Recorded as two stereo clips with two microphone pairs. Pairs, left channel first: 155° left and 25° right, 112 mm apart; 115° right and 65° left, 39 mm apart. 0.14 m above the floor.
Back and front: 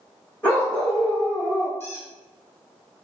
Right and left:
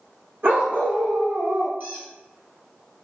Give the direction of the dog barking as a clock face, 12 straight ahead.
9 o'clock.